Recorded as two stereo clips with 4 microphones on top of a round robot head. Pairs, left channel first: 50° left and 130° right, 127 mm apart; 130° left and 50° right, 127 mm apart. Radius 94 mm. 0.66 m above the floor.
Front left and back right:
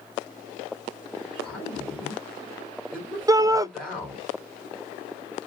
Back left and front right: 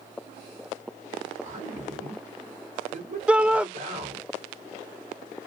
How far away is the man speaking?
About 2.5 m.